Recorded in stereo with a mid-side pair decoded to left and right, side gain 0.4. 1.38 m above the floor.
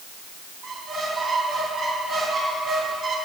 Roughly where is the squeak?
Ahead right.